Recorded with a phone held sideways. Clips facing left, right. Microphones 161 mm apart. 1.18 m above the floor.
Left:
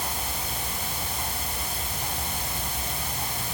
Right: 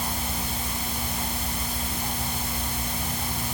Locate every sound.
Only background noise.